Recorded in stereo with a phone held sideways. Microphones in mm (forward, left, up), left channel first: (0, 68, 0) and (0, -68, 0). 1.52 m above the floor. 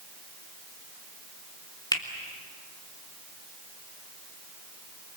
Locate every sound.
1.9 s a finger snap: 25° left (ahead or behind), 3 m